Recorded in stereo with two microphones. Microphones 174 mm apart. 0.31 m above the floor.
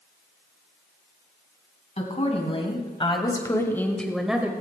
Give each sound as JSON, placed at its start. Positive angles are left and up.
{"t": 2.0, "sound": "a woman speaking", "side_deg": 45, "distance_m": 2.5}